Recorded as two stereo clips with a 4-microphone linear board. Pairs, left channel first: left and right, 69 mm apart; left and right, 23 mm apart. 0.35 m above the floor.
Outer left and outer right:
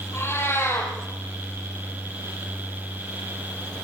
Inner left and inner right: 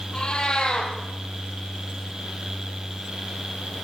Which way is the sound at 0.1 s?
40° left (ahead or behind).